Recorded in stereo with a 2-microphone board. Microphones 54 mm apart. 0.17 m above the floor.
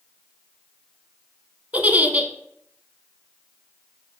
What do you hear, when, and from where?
1.7 s a giggle: 30° right (ahead or behind), 0.8 m